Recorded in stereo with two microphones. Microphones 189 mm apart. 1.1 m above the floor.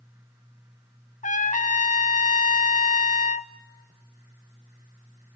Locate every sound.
1.2 s a trumpet: 45° left (ahead or behind), 1.1 m